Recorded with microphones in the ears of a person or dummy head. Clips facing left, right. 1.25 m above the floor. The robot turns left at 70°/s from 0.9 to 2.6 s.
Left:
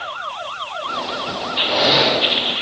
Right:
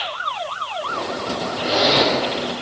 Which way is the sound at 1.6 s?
155° right.